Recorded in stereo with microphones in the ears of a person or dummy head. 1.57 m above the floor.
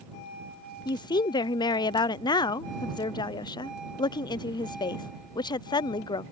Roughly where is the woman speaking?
Left.